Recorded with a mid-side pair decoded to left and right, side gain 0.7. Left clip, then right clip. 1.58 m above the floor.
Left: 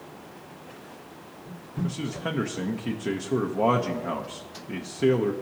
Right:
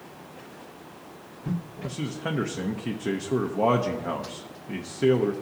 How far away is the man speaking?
About 0.6 m.